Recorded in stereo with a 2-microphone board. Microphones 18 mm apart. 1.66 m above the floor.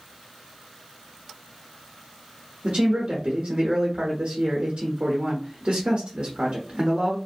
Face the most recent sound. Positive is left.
turn(degrees=-80)